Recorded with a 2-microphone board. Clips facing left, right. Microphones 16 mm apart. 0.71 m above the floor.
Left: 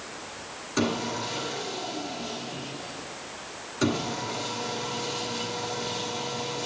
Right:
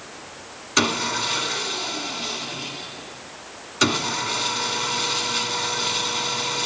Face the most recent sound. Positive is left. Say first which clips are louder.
# right 6 dB
turn(degrees=-65)  # may be behind; listen again after turning